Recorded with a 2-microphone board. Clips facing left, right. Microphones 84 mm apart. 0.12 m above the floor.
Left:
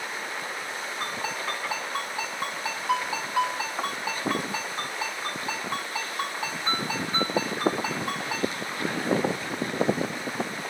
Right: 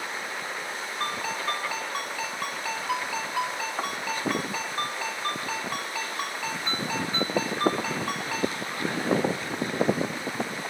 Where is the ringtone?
10° left (ahead or behind), 5 m.